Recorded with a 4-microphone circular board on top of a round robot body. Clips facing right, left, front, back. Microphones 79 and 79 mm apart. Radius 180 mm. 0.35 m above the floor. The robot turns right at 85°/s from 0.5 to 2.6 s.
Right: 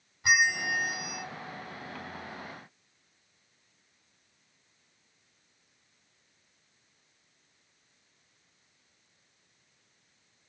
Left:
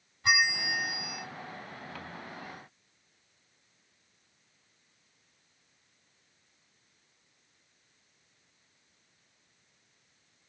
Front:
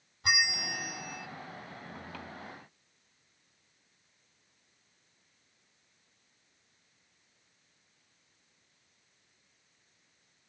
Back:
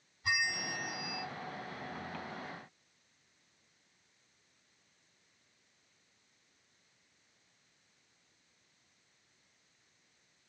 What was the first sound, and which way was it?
A bell, 10° right.